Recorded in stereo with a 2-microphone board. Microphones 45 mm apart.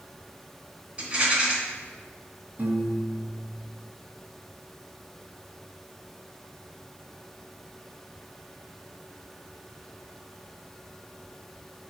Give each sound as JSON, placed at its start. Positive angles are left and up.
{"t": 1.0, "sound": "a rattle", "side_deg": -25, "distance_m": 2.5}
{"t": 2.6, "sound": "a piano", "side_deg": -45, "distance_m": 1.2}